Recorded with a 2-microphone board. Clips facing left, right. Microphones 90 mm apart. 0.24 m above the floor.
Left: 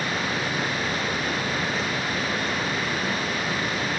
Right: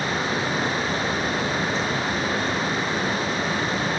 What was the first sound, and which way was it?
Only background noise.